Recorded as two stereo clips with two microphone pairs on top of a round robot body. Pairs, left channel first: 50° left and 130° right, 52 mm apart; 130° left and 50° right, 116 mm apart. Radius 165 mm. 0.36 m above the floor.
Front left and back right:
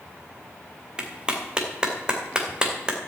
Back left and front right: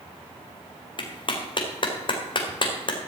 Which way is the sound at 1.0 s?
170° left.